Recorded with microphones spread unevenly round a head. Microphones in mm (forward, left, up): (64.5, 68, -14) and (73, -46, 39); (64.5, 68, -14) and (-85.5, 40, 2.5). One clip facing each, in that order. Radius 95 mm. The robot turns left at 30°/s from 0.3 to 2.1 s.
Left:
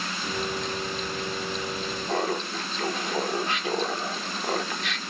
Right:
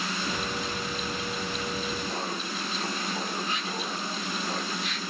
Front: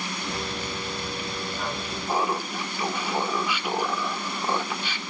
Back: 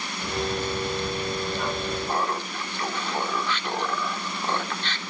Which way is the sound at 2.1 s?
90° left.